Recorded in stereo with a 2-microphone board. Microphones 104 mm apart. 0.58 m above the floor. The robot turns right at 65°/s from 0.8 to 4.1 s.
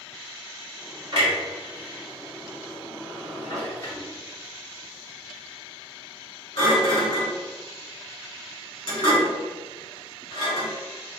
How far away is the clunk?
About 1.8 m.